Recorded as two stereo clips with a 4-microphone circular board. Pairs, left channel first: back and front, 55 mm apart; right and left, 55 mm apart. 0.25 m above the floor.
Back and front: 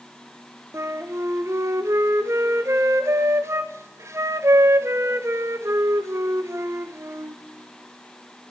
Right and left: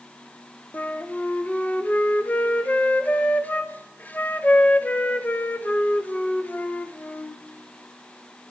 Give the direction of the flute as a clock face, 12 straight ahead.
1 o'clock.